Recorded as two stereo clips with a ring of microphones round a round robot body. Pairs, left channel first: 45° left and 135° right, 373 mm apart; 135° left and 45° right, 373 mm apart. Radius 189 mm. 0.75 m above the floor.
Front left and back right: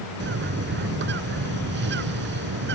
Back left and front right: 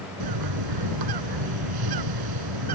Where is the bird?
75° right.